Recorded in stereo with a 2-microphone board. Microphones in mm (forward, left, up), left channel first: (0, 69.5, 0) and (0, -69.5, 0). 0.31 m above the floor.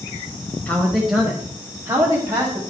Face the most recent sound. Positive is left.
turn(degrees=-30)  # may be behind; listen again after turning